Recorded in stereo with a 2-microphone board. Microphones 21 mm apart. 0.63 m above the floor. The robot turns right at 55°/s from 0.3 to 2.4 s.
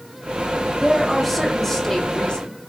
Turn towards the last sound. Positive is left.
turn(degrees=65)